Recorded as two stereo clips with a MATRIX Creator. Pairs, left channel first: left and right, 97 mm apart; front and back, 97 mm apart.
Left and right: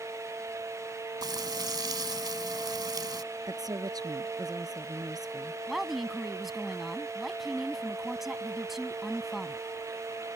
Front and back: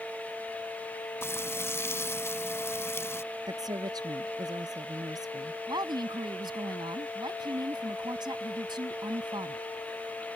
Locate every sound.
1.2 s frying: 55° right
3.5 s a woman speaking: 135° right
5.7 s a woman speaking: 175° right